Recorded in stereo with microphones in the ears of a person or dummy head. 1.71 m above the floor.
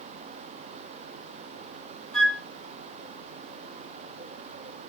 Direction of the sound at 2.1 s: 10° left (ahead or behind).